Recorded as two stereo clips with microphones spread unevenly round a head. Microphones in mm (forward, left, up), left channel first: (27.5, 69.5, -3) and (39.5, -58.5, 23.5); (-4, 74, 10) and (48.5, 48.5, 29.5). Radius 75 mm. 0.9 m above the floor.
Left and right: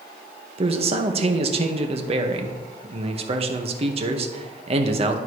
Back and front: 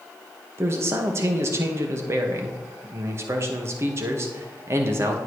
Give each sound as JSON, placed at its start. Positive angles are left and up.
{"t": 0.6, "sound": "a man speaking", "azimuth_deg": -70, "distance_m": 0.9}